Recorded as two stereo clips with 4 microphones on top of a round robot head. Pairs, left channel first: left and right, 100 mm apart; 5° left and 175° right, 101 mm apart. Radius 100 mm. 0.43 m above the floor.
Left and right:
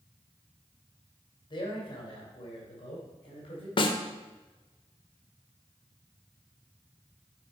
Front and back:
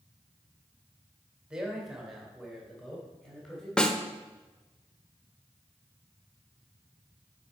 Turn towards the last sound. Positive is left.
turn(degrees=85)